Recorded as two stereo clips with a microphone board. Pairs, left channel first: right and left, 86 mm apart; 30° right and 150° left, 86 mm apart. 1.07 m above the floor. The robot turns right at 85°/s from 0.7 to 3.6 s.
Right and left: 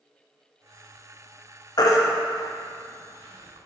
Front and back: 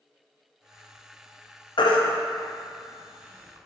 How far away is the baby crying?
About 0.7 m.